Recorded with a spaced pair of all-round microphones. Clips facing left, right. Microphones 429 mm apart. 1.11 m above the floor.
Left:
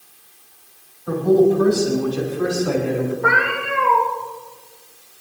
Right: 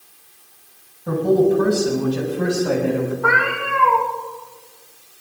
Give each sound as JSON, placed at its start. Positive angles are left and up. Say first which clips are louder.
{"t": 1.1, "sound": "a man speaking", "louder": "left 1 dB", "side_deg": -75, "distance_m": 7.0}
{"t": 3.2, "sound": "a cat meowing", "louder": "even", "side_deg": -20, "distance_m": 5.0}